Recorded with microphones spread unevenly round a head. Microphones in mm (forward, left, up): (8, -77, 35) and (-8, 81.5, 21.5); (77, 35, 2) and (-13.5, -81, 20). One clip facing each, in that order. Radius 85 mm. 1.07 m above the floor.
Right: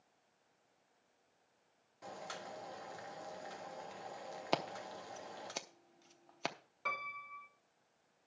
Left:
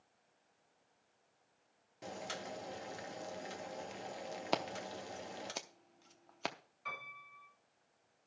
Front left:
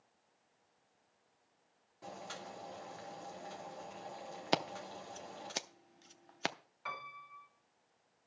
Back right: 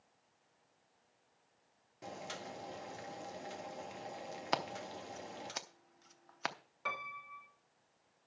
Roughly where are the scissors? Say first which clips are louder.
Even, front left 3 dB; ahead.